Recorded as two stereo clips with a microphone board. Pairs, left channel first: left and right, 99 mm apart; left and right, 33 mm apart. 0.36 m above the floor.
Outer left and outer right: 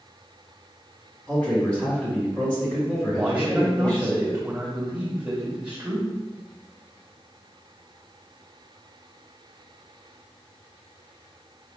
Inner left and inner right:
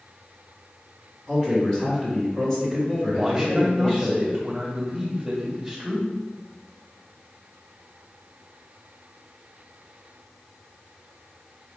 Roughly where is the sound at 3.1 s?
Centre.